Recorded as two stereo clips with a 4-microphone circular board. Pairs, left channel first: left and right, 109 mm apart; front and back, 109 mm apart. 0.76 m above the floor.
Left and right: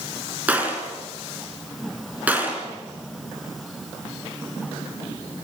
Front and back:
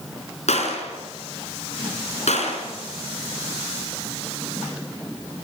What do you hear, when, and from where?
0.5 s a gunshot: 10° right, 4 m